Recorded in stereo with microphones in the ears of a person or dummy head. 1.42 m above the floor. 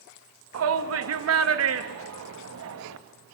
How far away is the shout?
About 2.5 m.